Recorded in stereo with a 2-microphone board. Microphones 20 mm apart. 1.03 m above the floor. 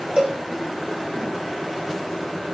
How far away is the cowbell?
About 4 m.